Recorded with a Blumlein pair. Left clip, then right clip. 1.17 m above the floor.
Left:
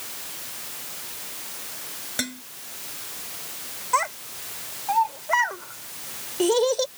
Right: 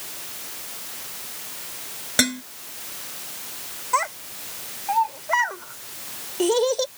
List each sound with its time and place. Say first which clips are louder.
2.2 s dishes clattering: right 9 dB; 25° right
3.9 s a child speaking: even; straight ahead